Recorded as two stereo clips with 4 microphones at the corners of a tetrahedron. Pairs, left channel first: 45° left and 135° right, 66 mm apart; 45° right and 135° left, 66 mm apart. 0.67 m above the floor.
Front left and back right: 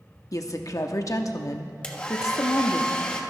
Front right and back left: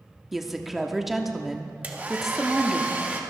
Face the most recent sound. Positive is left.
turn(degrees=105)